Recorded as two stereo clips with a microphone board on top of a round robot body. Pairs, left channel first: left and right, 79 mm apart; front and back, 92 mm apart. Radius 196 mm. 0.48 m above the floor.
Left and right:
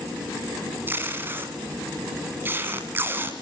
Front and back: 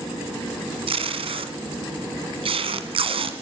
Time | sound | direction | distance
0.9 | tape being pulled | 155° right | 1.6 m